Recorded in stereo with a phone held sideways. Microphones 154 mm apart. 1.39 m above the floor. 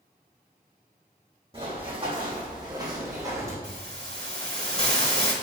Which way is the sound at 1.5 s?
40° right (ahead or behind).